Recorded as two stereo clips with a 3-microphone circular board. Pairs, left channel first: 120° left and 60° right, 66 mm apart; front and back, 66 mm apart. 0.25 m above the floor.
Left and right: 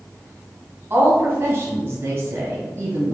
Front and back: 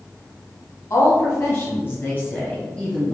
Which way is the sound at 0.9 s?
20° right.